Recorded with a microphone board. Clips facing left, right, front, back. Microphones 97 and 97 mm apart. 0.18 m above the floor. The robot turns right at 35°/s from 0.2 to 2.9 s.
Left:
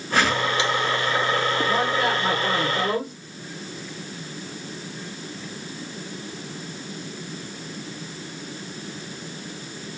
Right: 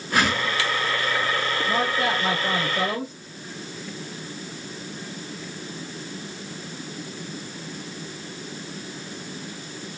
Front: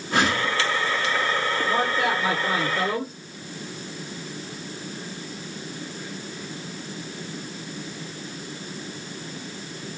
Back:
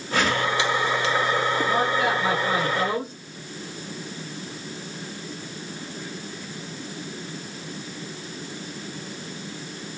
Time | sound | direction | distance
0.1 | a whoosh | 15° right | 3.5 m
1.7 | a man speaking | 55° left | 2.5 m